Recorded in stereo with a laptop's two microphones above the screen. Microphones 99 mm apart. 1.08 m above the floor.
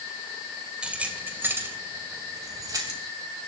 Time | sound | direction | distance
0.8 | keys jangling | 10° right (ahead or behind) | 3 m